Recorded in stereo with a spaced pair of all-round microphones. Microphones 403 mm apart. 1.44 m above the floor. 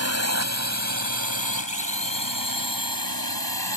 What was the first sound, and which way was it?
A drone, 40° right (ahead or behind).